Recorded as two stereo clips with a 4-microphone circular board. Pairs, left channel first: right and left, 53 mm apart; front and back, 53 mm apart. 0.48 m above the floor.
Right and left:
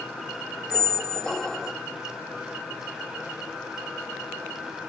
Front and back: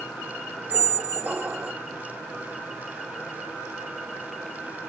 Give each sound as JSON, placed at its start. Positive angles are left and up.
{"t": 0.7, "sound": "a squeak", "azimuth_deg": -155}